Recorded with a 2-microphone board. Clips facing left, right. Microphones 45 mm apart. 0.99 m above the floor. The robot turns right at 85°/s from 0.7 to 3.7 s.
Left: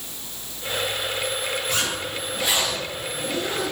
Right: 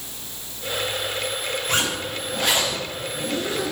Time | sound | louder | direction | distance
1.7 | a zipper | right 2 dB | 125° right | 4.5 m